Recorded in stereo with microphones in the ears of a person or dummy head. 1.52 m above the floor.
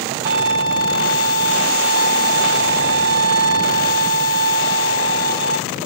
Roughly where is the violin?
Centre.